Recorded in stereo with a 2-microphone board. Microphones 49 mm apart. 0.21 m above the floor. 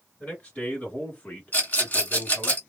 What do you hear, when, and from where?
0.2 s a man speaking: 25° left (ahead or behind), 1.6 m
1.5 s a rattle: 30° left (ahead or behind), 1.6 m